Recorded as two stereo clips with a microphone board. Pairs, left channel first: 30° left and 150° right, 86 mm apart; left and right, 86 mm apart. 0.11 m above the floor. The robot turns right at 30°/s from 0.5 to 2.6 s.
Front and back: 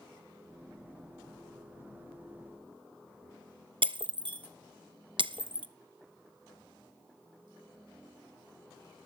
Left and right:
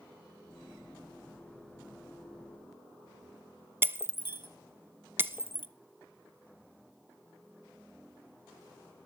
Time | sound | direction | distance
3.8 | breaking glass | 150° right | 0.6 m